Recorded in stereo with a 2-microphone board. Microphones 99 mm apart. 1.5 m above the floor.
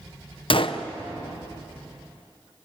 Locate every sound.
0.5 s a gunshot: 60° left (ahead or behind), 0.9 m